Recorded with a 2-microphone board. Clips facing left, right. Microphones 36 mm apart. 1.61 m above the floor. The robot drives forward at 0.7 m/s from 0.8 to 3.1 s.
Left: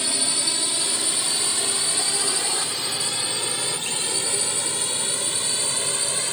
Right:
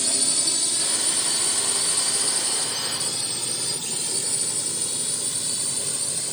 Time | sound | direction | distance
0.0 | a drone | 30° left (ahead or behind) | ?